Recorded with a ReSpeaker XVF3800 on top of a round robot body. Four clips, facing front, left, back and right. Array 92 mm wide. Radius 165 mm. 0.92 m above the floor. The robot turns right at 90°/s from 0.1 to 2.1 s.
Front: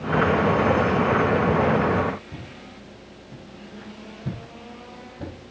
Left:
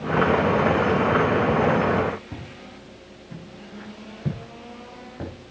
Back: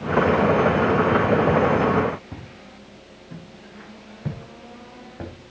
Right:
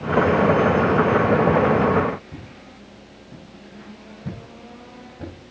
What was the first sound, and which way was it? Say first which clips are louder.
Footsteps: left 1 dB, front 1 dB; 140° left.